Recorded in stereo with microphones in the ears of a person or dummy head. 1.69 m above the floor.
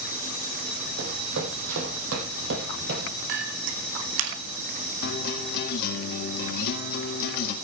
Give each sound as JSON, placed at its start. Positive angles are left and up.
{"t": 1.0, "sound": "running footsteps", "side_deg": -55, "distance_m": 3.0}
{"t": 3.3, "sound": "a clink", "side_deg": -60, "distance_m": 1.8}
{"t": 5.0, "sound": "a guitar", "side_deg": 55, "distance_m": 1.7}